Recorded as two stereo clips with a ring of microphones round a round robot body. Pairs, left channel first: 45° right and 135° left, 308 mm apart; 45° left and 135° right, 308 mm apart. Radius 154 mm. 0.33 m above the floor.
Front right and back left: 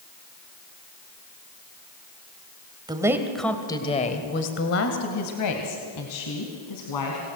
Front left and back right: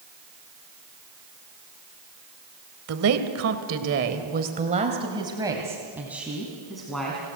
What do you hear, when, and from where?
2.9 s a woman speaking: 155° right, 1.8 m; by 7.3 s 40° right, 3.5 m